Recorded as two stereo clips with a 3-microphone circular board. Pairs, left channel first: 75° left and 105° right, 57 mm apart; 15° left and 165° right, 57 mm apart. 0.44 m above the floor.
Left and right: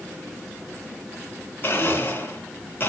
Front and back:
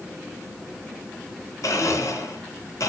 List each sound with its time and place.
1.6 s a blender: 25° left, 3 m